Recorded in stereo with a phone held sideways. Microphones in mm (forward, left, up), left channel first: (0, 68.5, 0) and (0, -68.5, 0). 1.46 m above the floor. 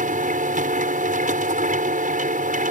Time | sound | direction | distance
0.0 | a machine running | 75° right (ahead or behind) | ?